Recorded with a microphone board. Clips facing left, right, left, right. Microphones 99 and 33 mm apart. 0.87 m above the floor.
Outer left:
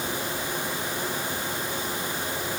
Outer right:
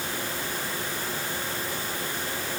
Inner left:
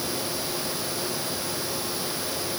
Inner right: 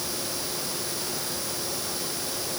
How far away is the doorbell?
I don't hear a doorbell.